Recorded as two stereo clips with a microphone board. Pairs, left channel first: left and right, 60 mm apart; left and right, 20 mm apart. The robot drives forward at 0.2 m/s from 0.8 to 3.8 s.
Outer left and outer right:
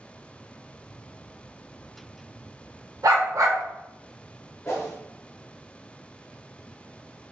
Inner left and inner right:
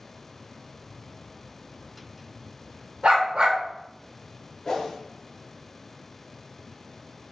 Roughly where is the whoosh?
Left.